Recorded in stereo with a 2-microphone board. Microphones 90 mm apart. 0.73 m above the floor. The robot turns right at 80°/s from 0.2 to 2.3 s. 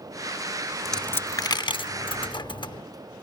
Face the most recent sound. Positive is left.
turn(degrees=60)  # may be behind; listen again after turning